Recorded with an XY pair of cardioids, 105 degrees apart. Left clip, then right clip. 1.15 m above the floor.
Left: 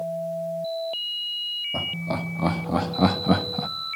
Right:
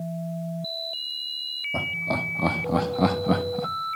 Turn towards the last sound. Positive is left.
turn(degrees=25)